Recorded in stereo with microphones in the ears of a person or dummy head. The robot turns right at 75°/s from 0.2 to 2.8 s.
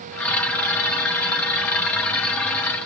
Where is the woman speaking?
I don't hear a woman speaking.